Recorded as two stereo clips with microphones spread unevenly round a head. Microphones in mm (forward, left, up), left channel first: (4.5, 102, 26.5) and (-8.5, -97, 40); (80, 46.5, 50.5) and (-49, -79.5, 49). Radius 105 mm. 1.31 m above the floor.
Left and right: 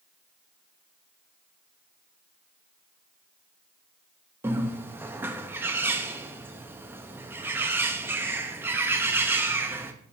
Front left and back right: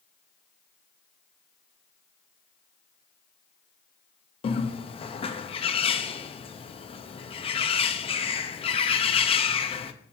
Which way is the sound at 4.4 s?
15° right.